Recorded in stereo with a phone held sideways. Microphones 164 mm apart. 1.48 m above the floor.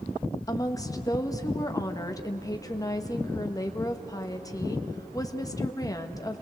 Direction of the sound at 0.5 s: 20° left (ahead or behind).